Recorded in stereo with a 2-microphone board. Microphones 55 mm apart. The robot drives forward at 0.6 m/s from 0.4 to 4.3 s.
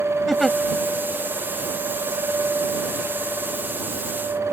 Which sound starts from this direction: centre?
A giggle, at 0.3 s.